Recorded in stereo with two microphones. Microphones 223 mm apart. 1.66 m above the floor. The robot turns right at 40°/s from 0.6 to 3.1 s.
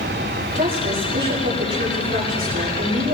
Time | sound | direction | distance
0.6 | a woman speaking | 140° right | 4.5 m